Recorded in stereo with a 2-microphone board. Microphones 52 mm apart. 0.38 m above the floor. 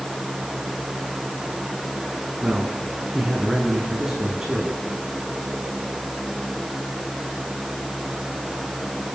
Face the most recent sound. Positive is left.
turn(degrees=-10)  # may be behind; listen again after turning